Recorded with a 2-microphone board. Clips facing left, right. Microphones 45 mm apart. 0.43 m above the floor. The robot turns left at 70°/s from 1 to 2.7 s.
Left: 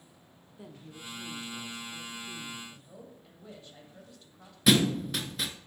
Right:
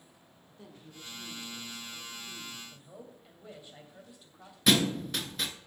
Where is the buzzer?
No buzzer in this recording.